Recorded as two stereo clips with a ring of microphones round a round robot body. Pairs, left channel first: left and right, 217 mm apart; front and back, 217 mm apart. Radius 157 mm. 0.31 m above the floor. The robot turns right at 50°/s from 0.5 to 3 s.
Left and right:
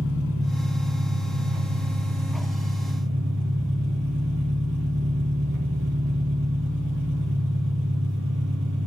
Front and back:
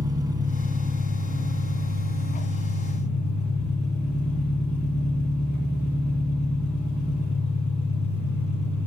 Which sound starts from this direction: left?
An engine running, at 0.0 s.